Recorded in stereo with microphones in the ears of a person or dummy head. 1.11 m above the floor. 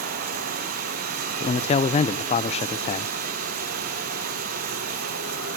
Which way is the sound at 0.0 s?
50° right (ahead or behind).